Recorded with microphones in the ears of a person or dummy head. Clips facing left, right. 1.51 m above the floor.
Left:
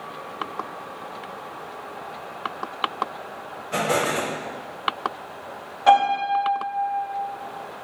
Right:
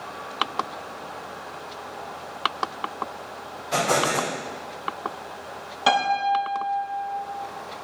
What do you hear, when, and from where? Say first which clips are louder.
3.7 s an explosion: even; 75° right (ahead or behind), 2 m
5.9 s a piano: left 4 dB; 40° right (ahead or behind), 1.9 m